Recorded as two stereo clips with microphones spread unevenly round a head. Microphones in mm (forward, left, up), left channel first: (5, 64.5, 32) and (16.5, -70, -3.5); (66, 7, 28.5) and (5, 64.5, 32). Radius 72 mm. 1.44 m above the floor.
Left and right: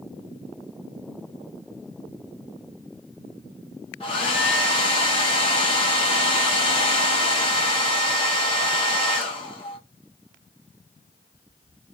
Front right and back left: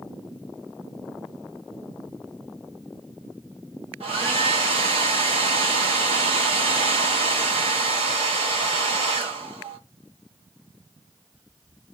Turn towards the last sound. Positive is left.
turn(degrees=150)